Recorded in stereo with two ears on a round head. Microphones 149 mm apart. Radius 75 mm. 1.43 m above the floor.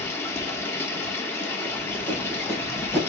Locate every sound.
0.0 s running water: 15° left (ahead or behind), 1.0 m
1.6 s running footsteps: 15° left (ahead or behind), 2.5 m; by 3.0 s 5° right (ahead or behind), 2.5 m